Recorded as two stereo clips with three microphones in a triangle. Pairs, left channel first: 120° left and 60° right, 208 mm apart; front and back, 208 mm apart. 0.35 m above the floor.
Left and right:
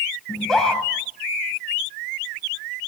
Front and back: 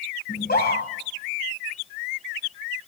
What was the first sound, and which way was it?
A scream, 30° left.